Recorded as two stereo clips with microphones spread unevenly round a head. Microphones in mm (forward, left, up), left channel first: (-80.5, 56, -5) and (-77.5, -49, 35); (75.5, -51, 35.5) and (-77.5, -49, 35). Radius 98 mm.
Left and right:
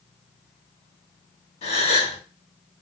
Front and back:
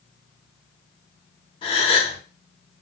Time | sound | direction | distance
1.6 | a gasp | 65° left | 3.5 m